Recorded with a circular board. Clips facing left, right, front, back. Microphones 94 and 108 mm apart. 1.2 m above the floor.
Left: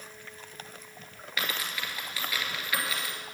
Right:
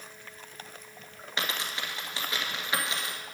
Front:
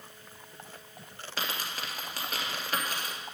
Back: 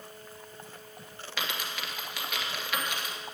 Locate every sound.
1.4 s a dropped coin: 35° right, 1.7 m